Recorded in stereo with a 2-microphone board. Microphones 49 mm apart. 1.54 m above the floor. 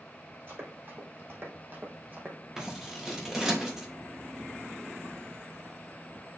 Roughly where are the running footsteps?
Right.